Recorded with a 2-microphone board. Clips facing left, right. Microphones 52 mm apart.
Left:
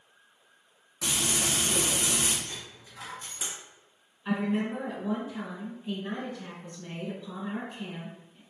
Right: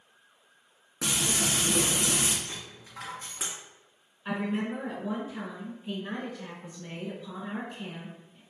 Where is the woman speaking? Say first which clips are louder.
Left 2 dB; 15° right (ahead or behind), 1.2 m.